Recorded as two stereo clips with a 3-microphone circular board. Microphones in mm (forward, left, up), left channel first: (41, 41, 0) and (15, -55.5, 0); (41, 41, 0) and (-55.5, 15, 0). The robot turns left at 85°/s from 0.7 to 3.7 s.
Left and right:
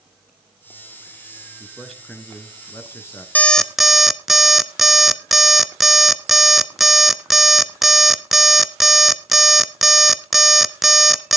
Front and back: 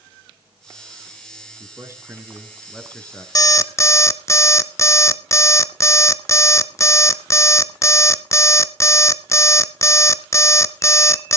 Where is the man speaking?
170° right, 1.8 m; by 3.2 s 50° left, 1.8 m.